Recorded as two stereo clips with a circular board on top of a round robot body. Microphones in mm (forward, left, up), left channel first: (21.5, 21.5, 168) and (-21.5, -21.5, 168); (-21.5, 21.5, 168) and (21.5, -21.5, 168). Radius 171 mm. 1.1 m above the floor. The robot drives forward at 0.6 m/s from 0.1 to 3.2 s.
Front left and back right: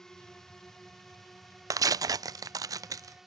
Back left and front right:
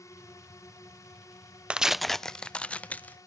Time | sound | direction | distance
0.0 | a drone | 125° left | ?
1.7 | tearing paper | 115° right | ?